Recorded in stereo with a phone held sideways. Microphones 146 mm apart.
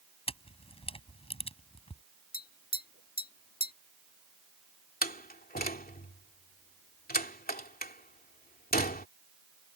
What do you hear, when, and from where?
0.3 s a camera shutter: 40° left (ahead or behind)
2.3 s tapping: 75° left (ahead or behind)
5.0 s a door slam: 85° left